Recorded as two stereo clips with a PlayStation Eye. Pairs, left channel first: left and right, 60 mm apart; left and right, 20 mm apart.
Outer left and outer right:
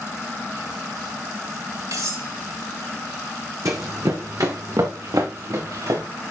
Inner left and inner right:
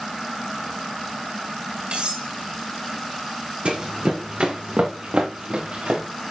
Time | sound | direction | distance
1.9 | cutlery clinking | 70° right (ahead or behind) | 4 m
3.6 | running footsteps | 60° right (ahead or behind) | 2 m